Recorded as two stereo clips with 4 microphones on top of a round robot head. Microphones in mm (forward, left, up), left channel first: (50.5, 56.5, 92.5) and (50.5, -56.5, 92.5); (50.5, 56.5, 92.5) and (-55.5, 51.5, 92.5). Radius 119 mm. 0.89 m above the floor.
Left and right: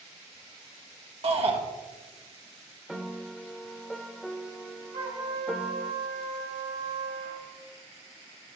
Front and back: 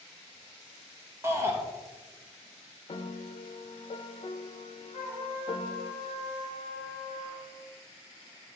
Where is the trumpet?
105° right, 3.5 m.